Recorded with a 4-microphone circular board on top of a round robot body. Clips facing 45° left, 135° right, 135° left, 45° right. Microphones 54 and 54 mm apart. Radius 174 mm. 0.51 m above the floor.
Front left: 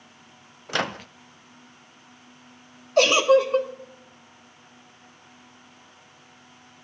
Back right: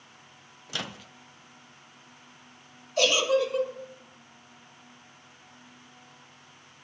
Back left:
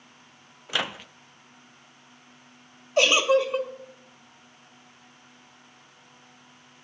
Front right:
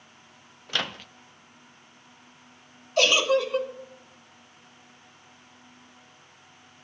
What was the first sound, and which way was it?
A microwave, 60° left.